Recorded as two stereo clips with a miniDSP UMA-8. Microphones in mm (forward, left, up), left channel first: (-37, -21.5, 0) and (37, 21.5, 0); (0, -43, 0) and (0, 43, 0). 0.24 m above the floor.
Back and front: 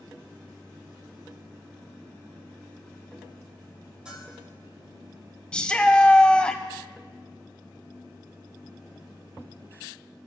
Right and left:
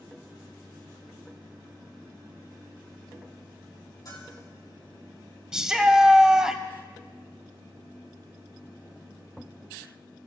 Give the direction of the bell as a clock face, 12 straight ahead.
2 o'clock.